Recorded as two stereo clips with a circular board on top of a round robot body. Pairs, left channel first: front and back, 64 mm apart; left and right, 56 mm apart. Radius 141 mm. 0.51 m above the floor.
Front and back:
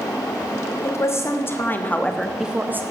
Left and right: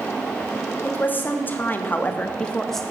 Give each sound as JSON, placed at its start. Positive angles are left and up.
{"t": 0.8, "sound": "a woman speaking", "azimuth_deg": 35, "distance_m": 3.0}